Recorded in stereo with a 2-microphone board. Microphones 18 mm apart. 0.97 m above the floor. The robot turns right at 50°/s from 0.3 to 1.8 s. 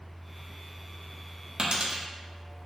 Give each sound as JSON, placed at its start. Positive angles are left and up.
{"t": 1.6, "sound": "a dropped coin", "side_deg": -60, "distance_m": 0.5}